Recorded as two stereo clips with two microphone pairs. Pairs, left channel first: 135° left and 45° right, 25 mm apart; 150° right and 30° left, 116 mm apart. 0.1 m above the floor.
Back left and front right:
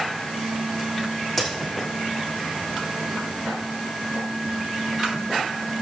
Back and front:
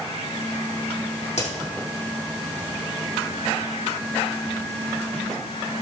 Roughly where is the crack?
Behind right.